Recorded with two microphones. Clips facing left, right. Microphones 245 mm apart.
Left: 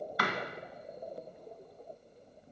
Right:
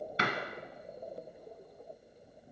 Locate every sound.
0.2 s a door slam: 25° right (ahead or behind), 1.3 m